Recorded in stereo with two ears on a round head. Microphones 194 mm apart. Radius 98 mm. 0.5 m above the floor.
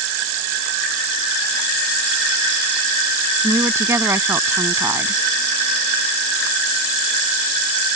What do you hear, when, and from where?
3.4 s a woman speaking: 15° right (ahead or behind)